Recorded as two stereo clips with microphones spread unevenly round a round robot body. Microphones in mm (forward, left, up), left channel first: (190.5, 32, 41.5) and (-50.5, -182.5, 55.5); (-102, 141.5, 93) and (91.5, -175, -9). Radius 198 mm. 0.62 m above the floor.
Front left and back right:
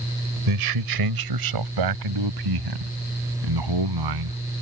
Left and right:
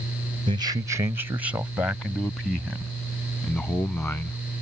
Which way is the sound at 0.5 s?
135° right.